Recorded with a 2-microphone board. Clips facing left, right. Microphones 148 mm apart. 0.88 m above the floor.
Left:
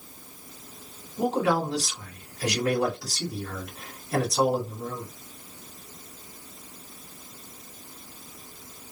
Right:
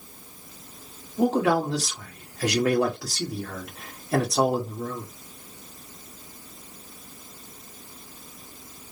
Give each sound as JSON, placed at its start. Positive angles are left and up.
{"t": 1.2, "sound": "a man speaking", "side_deg": -75, "distance_m": 2.0}